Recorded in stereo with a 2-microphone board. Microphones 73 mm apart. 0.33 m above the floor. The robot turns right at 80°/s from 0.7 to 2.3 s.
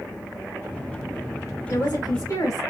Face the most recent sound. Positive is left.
turn(degrees=110)